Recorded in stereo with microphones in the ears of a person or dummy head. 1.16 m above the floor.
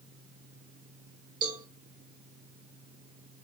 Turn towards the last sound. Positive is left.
turn(degrees=-15)  # may be behind; listen again after turning